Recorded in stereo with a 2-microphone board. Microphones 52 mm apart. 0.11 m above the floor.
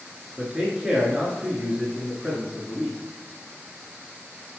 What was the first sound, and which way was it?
A man speaking, 15° right (ahead or behind).